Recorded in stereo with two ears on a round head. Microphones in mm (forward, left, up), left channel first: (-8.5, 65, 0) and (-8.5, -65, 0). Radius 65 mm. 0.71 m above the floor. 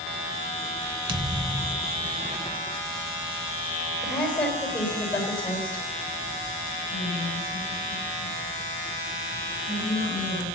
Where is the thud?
35° right (ahead or behind), 1.3 m.